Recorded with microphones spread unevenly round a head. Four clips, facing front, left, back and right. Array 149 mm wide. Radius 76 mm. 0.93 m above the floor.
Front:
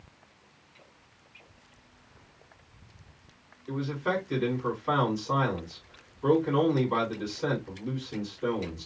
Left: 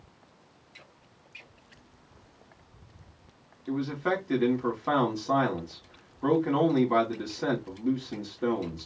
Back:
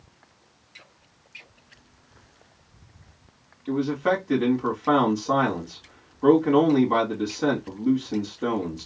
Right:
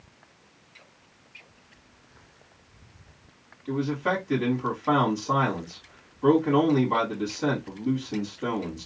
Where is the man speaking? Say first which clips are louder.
Right 2 dB, back 7 dB; 160° left, 2.5 m.